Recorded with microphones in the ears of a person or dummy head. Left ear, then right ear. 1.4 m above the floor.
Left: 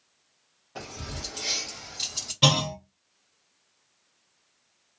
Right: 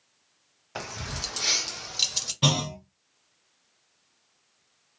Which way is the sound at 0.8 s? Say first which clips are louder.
Right 4 dB; 50° right (ahead or behind).